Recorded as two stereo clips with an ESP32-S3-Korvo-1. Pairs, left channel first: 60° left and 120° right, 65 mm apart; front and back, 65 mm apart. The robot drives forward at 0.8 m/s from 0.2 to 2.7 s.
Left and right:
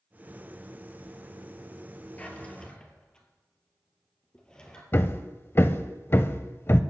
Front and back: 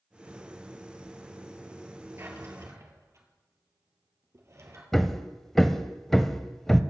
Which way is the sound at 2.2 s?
130° left.